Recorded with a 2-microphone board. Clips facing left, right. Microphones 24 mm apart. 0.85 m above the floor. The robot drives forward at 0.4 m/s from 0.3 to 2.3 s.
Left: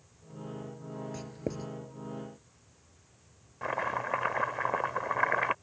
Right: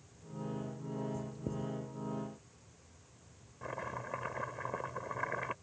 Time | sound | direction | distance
1.1 | writing | 60° left (ahead or behind) | ?
3.6 | chopping | 40° left (ahead or behind) | ?